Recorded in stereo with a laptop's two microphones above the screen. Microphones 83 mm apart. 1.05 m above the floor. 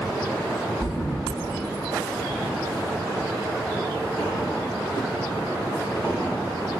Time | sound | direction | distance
0.8 | a thud | 35° left (ahead or behind) | 1.4 m